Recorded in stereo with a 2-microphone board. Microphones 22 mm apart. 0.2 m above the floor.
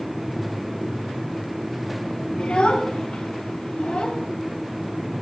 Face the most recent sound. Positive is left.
turn(degrees=40)  # may be behind; listen again after turning